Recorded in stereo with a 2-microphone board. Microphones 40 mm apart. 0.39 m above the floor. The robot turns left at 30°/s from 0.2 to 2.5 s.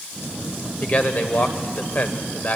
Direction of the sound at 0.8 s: 120° left.